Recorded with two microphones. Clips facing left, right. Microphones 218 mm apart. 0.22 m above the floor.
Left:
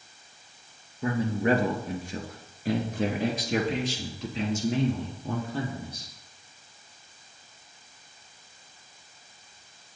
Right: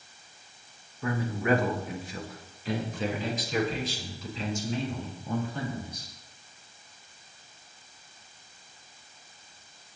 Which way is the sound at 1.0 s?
25° left (ahead or behind).